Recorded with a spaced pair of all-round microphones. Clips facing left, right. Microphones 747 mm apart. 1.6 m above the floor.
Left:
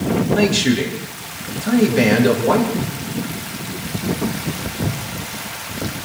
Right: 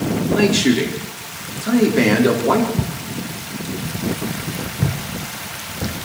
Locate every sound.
0.3 s a man speaking: 25° left (ahead or behind), 4.5 m
2.8 s footsteps: 50° right (ahead or behind), 4 m; by 6.1 s 30° right (ahead or behind), 5.5 m